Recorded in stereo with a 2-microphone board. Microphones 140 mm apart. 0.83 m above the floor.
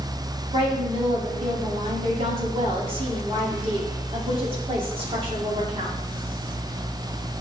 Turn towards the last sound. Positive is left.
turn(degrees=-40)  # may be behind; listen again after turning